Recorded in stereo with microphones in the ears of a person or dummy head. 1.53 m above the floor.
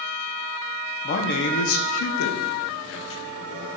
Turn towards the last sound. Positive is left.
turn(degrees=65)  # may be behind; listen again after turning